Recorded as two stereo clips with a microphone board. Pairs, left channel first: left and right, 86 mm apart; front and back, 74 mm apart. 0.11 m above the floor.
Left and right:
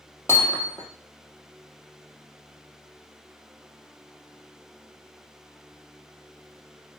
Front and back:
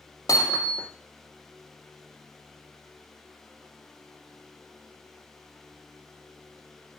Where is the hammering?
30° left, 3 m.